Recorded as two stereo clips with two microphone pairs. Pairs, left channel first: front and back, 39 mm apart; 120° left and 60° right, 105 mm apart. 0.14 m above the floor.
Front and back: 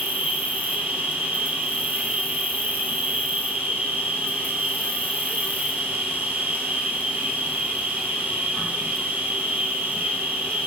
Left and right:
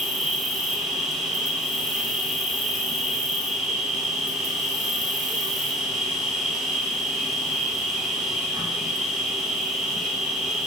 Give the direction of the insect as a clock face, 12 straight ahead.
5 o'clock.